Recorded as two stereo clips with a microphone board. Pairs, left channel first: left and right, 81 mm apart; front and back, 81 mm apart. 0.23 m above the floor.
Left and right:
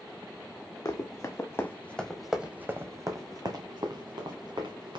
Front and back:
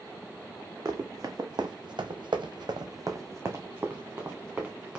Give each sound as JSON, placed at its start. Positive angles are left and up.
{"t": 0.8, "sound": "running footsteps", "azimuth_deg": 130, "distance_m": 1.1}